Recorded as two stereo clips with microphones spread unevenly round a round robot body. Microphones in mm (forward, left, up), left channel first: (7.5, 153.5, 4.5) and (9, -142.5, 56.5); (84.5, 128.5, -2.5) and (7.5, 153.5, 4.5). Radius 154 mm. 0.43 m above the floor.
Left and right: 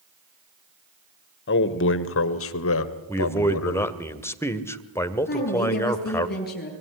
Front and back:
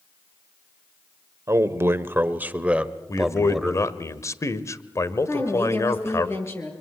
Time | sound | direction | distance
1.5 | a man speaking | 115° left | 1.6 m
3.1 | a man speaking | 20° left | 1.7 m
5.3 | a woman speaking | 35° left | 10 m